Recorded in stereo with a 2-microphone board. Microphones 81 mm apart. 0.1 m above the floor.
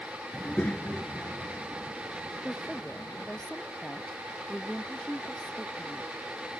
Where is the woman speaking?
5° left (ahead or behind).